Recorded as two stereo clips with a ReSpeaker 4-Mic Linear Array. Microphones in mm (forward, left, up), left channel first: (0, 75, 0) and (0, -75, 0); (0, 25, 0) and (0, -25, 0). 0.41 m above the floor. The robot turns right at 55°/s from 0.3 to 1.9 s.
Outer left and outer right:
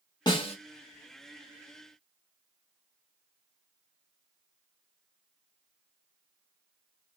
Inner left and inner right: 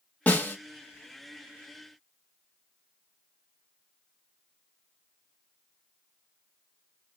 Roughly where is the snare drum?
Left.